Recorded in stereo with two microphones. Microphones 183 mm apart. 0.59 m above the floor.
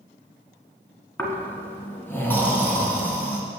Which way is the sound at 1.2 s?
10° left (ahead or behind).